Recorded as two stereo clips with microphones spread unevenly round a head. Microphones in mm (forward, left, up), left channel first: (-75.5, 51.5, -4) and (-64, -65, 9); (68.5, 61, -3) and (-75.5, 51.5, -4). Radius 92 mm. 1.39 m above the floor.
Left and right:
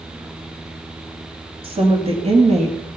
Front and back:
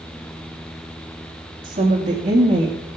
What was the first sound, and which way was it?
A woman speaking, 125° right.